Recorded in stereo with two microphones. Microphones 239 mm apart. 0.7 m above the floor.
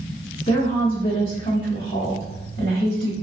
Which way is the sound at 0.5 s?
35° left (ahead or behind).